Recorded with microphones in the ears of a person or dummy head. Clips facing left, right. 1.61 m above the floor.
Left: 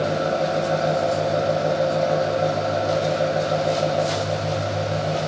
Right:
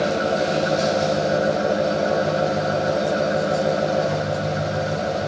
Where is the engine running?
15° right (ahead or behind), 3.5 m.